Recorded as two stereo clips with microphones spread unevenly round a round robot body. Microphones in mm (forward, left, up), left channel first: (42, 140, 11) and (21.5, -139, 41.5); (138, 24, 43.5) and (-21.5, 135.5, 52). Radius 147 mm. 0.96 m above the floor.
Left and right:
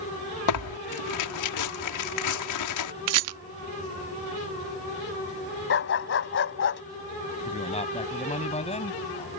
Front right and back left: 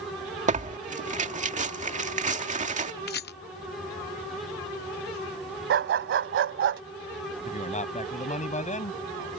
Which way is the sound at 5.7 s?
140° left.